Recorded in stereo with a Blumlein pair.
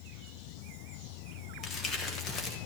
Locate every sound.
1.6 s crumpling: 25° left, 1.5 m